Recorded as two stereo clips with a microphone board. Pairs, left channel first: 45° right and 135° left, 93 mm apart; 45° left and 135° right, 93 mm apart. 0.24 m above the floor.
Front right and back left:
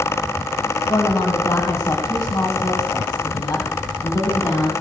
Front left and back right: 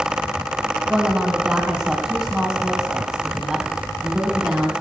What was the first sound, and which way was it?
A woman speaking, 55° right.